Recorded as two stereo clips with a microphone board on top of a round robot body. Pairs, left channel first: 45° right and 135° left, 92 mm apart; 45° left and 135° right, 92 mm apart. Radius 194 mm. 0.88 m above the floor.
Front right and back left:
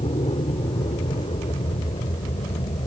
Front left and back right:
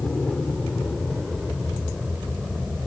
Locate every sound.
0.0 s an aircraft: 40° right; by 2.9 s 55° right